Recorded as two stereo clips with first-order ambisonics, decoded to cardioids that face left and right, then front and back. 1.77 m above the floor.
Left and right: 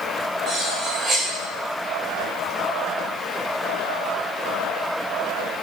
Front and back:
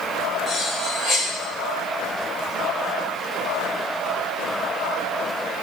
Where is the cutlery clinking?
40° right, 0.9 m.